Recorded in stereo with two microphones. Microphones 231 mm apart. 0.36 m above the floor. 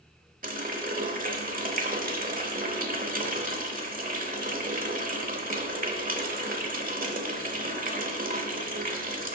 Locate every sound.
0.4 s a running tap: 40° right (ahead or behind), 0.8 m